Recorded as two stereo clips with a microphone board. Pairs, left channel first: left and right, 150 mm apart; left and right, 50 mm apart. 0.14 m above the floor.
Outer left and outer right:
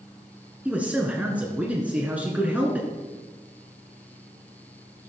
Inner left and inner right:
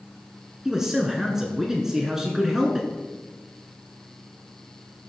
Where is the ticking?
I don't hear ticking.